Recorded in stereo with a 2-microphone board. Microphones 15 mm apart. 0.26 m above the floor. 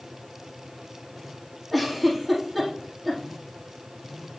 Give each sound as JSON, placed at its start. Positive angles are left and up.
{"t": 1.7, "sound": "a giggle", "side_deg": 0, "distance_m": 5.0}